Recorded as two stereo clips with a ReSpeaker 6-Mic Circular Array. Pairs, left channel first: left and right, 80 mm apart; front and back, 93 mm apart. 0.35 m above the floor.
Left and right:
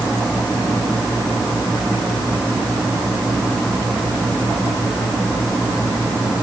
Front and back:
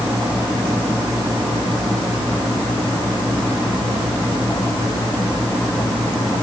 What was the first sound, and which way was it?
Only background noise.